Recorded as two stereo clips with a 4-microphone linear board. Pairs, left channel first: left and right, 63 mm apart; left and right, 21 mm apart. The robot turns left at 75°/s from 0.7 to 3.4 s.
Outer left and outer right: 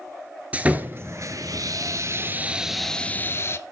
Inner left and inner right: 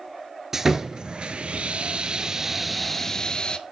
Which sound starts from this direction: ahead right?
Sawing, at 0.5 s.